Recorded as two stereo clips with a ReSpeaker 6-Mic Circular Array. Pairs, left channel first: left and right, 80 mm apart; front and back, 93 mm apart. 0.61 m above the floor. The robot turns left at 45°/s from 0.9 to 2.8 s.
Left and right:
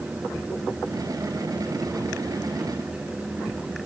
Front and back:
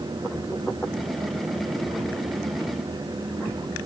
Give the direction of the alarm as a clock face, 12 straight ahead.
I don't hear an alarm.